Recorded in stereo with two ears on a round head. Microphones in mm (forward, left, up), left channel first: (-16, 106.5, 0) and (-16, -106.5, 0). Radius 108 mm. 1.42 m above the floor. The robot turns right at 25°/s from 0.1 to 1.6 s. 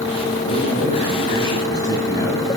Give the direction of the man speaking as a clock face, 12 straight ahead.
8 o'clock.